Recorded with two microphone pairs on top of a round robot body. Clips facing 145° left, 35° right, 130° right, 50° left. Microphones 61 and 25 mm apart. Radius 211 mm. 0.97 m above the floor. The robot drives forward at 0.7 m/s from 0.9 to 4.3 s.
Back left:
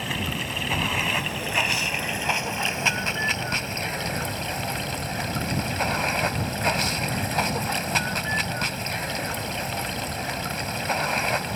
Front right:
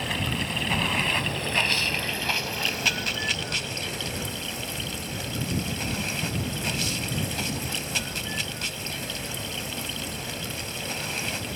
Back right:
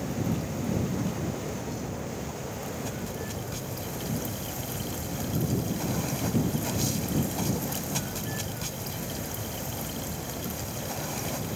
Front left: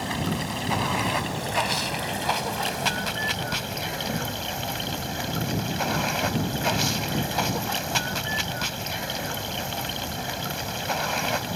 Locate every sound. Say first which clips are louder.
0.0 s running water: even, front left 3 dB; 55° left; by 11.6 s 95° left